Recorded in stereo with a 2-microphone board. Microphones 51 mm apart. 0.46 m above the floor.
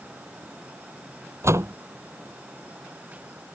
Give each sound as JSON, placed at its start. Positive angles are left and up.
{"t": 1.4, "sound": "a door slam", "side_deg": -65}